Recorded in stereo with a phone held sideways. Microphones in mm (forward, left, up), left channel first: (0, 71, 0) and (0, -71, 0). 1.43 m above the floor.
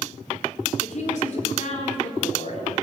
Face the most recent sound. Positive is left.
turn(degrees=55)  # may be behind; listen again after turning